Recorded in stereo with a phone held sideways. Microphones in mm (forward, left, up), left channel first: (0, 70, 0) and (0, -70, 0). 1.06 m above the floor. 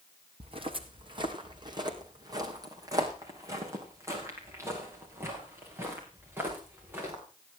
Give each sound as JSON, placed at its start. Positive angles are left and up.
{"t": 0.4, "sound": "footsteps", "side_deg": -40, "distance_m": 2.5}